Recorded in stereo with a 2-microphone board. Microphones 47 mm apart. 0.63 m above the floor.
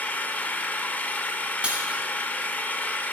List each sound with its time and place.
0.0 s an engine running: 35° left (ahead or behind), 0.7 m
1.6 s breaking glass: 25° right (ahead or behind), 2.5 m